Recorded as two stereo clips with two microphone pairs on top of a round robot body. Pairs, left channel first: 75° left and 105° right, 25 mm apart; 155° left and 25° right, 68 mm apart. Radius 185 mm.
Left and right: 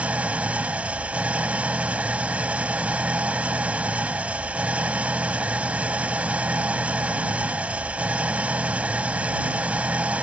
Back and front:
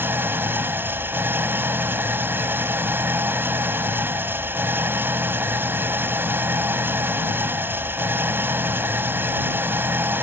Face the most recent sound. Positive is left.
turn(degrees=-85)